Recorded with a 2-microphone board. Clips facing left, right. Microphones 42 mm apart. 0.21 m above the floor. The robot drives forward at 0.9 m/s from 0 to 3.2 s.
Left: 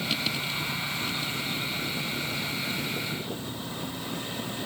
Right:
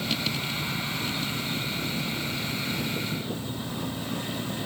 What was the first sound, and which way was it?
Only background noise.